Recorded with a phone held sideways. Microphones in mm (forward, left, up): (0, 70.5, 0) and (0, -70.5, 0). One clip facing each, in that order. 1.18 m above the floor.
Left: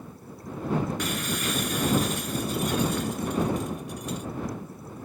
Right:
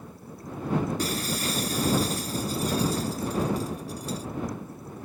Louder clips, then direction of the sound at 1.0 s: Right 1 dB; 35° right (ahead or behind).